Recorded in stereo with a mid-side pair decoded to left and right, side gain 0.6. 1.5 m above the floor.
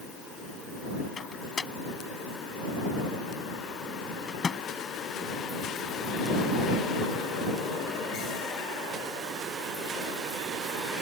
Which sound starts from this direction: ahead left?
A microwave, at 1.2 s.